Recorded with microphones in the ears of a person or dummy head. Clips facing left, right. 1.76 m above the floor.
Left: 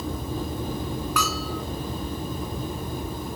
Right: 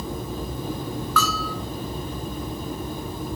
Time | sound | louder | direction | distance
1.2 | a bell | right 2 dB | 10° left (ahead or behind) | 4 m